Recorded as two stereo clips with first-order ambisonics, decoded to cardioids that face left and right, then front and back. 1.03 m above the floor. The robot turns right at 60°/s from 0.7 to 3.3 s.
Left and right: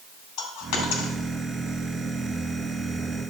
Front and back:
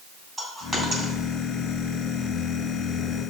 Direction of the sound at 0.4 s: 110° left.